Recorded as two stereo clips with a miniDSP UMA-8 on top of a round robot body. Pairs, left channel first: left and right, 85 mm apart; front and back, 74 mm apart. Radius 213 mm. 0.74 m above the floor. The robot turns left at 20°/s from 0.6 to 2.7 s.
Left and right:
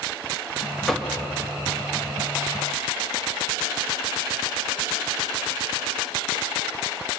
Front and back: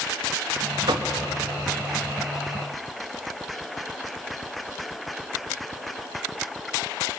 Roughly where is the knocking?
Behind.